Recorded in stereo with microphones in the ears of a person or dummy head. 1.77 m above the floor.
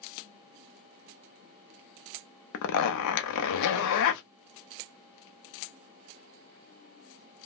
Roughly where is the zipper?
Left.